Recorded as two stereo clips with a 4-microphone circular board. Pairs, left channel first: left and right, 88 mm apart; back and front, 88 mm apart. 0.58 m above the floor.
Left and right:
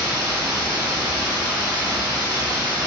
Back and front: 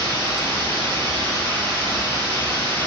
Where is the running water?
40° right, 1.9 m.